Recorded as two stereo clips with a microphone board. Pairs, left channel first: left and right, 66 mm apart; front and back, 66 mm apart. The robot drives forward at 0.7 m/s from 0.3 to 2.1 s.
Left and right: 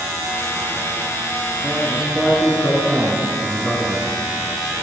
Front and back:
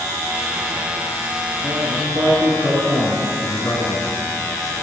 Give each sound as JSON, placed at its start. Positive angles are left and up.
{"t": 1.6, "sound": "a man speaking", "azimuth_deg": -170, "distance_m": 3.0}
{"t": 3.4, "sound": "a man speaking", "azimuth_deg": 5, "distance_m": 3.5}